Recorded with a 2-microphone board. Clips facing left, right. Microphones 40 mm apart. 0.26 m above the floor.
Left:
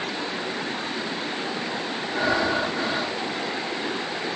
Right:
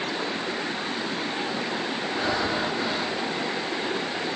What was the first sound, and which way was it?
Breathing, 80° left.